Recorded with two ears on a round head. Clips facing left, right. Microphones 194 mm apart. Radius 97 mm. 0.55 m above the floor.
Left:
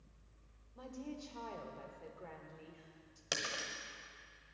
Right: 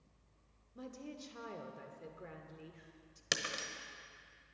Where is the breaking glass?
30° right (ahead or behind), 1.1 m.